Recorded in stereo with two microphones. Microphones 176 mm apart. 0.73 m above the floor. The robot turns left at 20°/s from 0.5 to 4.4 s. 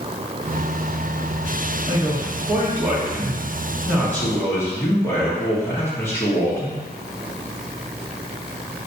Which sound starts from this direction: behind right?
A man speaking, at 1.9 s.